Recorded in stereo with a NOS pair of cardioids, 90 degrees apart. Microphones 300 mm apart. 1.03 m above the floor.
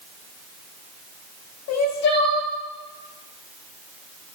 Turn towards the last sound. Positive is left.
turn(degrees=55)